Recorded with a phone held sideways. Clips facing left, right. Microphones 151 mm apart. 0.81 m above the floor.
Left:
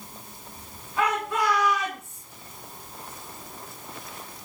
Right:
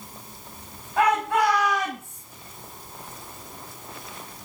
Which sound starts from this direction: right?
A shout, at 1.0 s.